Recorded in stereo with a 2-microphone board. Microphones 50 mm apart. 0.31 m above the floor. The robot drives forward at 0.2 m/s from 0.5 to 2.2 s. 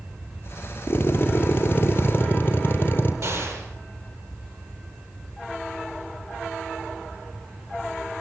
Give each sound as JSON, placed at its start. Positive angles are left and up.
{"t": 0.9, "sound": "a drill", "side_deg": 50, "distance_m": 3.5}
{"t": 3.2, "sound": "an explosion", "side_deg": -75, "distance_m": 9.0}